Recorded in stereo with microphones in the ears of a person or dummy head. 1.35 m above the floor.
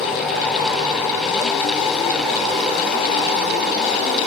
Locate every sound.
Only background noise.